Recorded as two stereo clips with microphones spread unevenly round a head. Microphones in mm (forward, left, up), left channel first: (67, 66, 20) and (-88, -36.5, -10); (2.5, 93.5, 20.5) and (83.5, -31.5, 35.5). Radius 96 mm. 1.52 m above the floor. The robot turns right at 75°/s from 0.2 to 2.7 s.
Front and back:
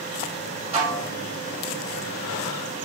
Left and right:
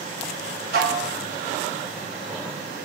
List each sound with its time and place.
0.7 s dishes clattering: 85° right, 1.4 m; by 1.1 s 50° right, 1.4 m